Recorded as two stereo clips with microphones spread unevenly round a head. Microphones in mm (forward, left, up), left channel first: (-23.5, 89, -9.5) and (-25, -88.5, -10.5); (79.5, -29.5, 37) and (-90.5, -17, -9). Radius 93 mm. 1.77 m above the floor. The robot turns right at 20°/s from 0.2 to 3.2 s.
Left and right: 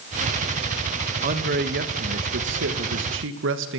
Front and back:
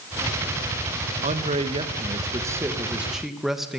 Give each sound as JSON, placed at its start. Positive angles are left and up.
{"t": 1.2, "sound": "a man speaking", "azimuth_deg": -130, "distance_m": 1.8}